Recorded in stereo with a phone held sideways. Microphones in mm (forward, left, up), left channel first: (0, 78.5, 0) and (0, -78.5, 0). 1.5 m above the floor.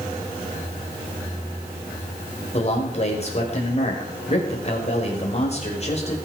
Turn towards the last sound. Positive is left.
turn(degrees=40)  # may be behind; listen again after turning